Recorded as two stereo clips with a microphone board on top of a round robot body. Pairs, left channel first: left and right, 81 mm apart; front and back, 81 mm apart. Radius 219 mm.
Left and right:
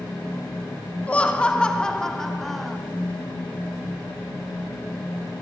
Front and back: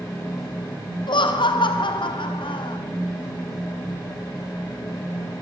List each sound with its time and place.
1.1 s laughter: 15° left, 2.5 m; by 2.8 s straight ahead, 3 m